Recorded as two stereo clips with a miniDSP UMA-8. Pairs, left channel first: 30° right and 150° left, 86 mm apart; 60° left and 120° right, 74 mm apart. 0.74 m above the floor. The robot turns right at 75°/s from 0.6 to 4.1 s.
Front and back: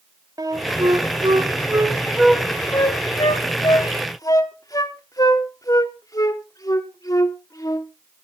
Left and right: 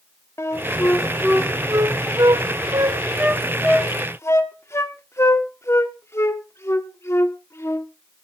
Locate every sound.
0.4 s a flute: 110° left, 1.3 m; by 7.9 s 15° left, 1.3 m